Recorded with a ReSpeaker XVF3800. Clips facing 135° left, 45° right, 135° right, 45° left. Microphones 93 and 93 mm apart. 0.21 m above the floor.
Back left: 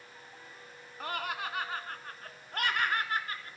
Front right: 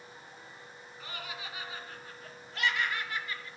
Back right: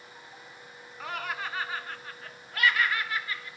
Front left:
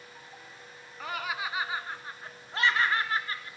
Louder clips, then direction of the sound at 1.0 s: Back left 8 dB, front left 1 dB; 135° left.